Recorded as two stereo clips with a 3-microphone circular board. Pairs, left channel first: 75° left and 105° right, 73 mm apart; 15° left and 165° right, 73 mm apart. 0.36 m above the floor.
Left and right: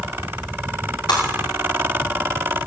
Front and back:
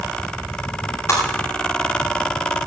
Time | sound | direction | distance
1.1 | breaking glass | 65° left | 8.5 m